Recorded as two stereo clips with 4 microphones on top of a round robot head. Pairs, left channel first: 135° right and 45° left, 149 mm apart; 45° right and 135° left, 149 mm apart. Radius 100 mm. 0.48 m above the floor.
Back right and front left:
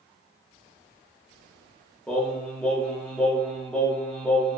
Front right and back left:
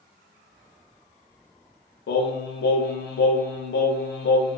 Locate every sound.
2.1 s singing: 55° right, 0.5 m